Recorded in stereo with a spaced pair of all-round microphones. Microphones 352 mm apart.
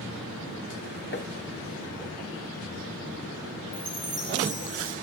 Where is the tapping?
30° left (ahead or behind), 0.6 m.